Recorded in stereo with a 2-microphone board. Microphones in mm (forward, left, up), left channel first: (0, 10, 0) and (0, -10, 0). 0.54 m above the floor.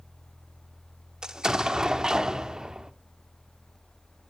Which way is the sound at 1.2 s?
35° right (ahead or behind).